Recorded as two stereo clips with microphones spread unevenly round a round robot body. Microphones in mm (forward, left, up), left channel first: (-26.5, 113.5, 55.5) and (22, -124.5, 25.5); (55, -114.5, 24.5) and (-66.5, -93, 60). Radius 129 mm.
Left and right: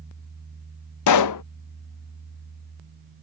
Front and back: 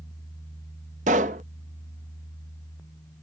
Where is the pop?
115° left.